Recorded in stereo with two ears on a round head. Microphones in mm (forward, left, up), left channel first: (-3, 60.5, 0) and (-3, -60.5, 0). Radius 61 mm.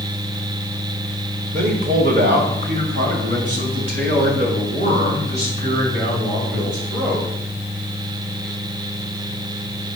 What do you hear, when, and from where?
1.5 s a man speaking: 65° right (ahead or behind), 1.8 m; by 7.3 s 60° right (ahead or behind), 7.5 m